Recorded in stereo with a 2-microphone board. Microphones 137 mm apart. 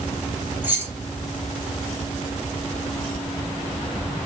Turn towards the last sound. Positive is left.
turn(degrees=-15)  # may be behind; listen again after turning